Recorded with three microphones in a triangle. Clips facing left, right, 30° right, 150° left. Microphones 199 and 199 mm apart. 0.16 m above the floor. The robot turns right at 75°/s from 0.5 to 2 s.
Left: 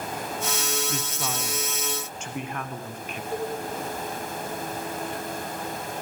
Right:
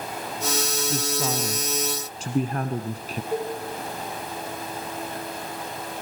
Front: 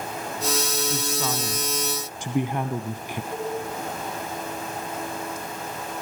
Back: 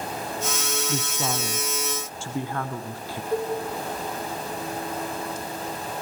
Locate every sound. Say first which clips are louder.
0.9 s a woman speaking: right 5 dB, front 1 dB; 170° right, 1.5 m; by 3.2 s 90° right, 1.5 m
3.3 s a cowbell: right 2 dB, back 6 dB; 160° right, 8.5 m